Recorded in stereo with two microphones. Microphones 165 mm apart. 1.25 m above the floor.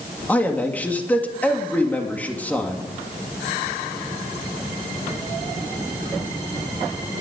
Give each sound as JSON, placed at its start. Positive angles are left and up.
{"t": 0.3, "sound": "a man speaking", "side_deg": 10, "distance_m": 2.5}